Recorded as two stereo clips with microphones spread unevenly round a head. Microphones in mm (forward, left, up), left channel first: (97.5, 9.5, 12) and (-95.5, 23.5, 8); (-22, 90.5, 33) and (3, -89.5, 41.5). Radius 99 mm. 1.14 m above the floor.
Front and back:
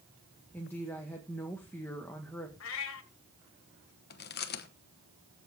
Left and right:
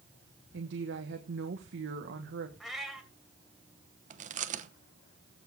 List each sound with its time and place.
0.5 s a woman speaking: 85° right, 1.3 m
2.6 s a cat meowing: 5° left, 1.8 m
4.1 s chewing: 35° right, 1.0 m